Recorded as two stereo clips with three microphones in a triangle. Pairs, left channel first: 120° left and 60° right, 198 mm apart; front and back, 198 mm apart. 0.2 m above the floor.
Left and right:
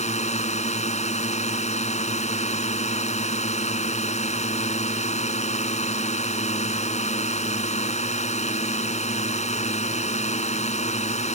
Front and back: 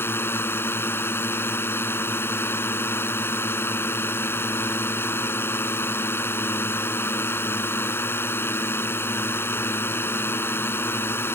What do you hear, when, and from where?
0.0 s a drone: 75° left